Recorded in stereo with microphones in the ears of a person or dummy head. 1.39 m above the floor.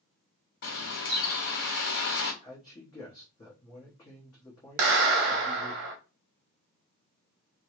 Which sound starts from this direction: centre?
A man speaking, at 2.4 s.